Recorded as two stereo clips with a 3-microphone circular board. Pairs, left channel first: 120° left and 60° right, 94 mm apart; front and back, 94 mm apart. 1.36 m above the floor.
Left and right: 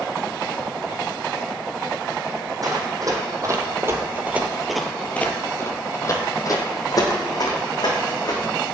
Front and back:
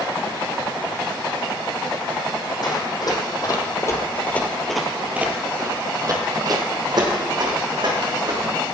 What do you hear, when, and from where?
2.6 s running footsteps: 25° right, 2.5 m; by 8.4 s 155° left, 4.5 m